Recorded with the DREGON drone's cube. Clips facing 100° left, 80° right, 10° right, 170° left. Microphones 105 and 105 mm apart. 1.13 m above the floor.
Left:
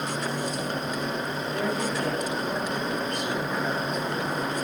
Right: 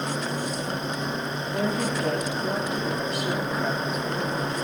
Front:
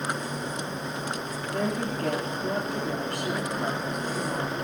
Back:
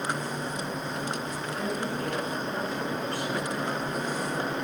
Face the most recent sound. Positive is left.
turn(degrees=5)